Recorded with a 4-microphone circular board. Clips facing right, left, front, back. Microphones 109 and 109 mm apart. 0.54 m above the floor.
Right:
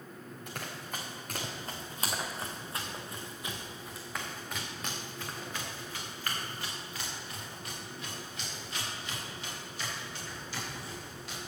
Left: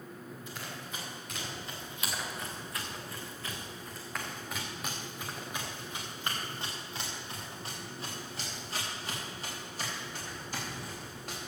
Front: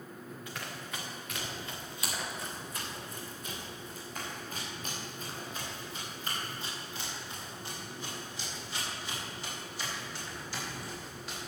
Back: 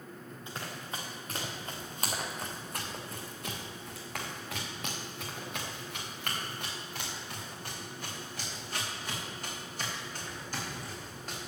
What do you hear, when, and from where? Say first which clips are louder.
0.5 s running footsteps: right 4 dB, back 3 dB; 115° right, 3 m; by 11.5 s 135° left, 6.5 m